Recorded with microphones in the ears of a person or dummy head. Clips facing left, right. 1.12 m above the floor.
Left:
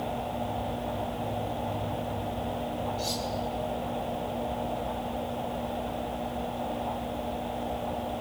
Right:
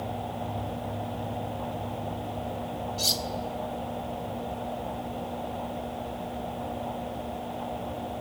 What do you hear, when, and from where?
3.0 s cutlery clinking: 85° right, 2.0 m